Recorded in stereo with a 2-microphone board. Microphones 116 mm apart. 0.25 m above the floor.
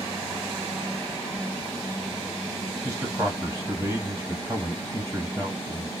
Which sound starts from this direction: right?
A man speaking, at 2.8 s.